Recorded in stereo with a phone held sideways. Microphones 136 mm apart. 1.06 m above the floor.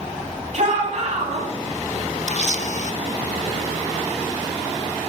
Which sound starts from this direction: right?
A shout, at 0.5 s.